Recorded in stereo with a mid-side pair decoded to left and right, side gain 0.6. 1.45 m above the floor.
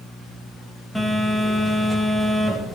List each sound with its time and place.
0.9 s a phone buzzing: 5° left, 5 m